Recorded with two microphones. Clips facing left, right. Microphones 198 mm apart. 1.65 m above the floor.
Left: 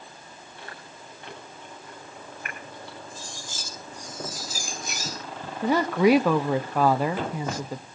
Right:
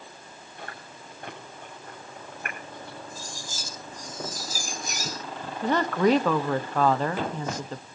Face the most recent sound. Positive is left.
turn(degrees=10)  # may be behind; listen again after turning